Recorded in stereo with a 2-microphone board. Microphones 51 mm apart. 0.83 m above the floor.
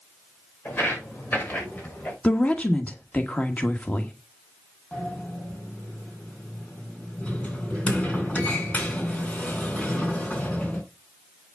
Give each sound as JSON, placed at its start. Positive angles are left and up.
{"t": 0.7, "sound": "footsteps", "side_deg": 45, "distance_m": 6.5}
{"t": 2.2, "sound": "a woman speaking", "side_deg": 30, "distance_m": 1.2}
{"t": 4.9, "sound": "a sliding door", "side_deg": 30, "distance_m": 4.5}